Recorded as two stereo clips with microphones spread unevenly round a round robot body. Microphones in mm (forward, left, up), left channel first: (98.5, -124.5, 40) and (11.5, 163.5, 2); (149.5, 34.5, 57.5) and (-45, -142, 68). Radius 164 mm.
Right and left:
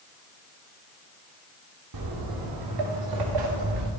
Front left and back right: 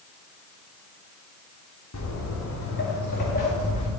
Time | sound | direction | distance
1.9 | footsteps | 90° left | 2.5 m